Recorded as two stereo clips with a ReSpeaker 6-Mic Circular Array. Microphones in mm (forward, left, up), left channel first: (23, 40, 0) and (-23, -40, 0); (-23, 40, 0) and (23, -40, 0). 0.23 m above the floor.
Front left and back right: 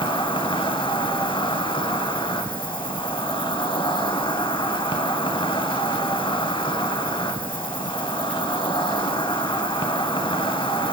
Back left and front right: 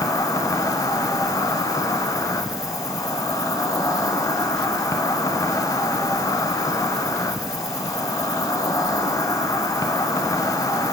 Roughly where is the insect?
Left.